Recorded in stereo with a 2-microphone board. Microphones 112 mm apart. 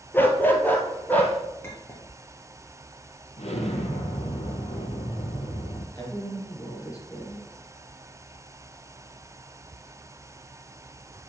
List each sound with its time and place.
0.1 s a dog barking: 20° left (ahead or behind), 1.1 m; by 1.4 s 15° left (ahead or behind), 1.8 m
1.6 s a clink: 20° left (ahead or behind), 1.8 m
3.4 s an explosion: 70° left (ahead or behind), 1.7 m
6.0 s a woman speaking: 30° left (ahead or behind), 3 m